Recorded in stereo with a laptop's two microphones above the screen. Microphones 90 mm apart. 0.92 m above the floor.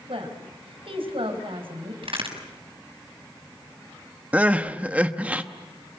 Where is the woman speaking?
80° right, 5 m.